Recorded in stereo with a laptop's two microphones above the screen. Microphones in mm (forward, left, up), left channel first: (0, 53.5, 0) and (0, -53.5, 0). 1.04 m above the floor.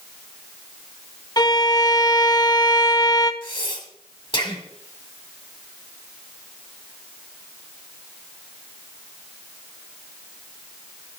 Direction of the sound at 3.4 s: 50° left (ahead or behind).